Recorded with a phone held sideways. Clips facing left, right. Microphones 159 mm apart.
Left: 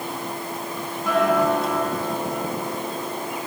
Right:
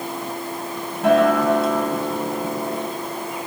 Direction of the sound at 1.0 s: 80° right.